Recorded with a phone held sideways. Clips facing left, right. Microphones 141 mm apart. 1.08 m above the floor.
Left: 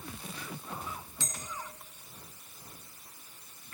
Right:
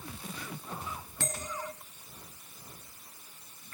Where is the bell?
65° right (ahead or behind), 1.0 m.